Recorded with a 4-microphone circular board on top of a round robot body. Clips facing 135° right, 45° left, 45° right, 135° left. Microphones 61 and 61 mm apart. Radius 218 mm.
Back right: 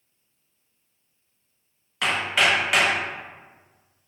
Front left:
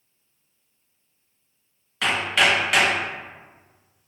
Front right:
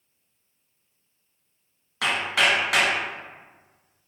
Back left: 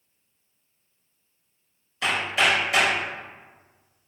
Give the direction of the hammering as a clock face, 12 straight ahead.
2 o'clock.